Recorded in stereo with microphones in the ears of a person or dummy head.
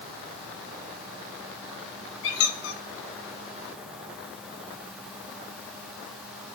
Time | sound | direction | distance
2.2 | a squeak | 75° left (ahead or behind) | 0.9 m